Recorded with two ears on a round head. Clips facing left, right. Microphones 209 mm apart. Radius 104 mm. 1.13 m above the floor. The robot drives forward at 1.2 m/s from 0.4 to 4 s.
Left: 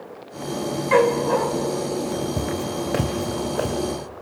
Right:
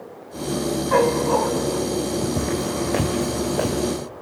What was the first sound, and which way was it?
A dog barking, 40° left (ahead or behind).